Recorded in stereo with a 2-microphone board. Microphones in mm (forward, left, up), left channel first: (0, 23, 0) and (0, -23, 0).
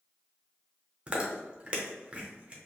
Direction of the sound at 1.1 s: 25° right (ahead or behind).